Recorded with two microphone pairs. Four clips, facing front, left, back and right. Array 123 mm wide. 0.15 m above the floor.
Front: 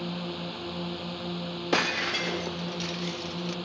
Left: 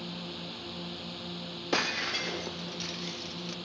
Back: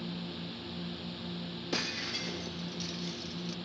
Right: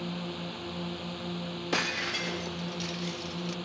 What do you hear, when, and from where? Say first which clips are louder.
0.0 s a drone: right 4 dB, front 6 dB; 10° right
1.7 s breaking glass: left 1 dB, front 11 dB; 15° left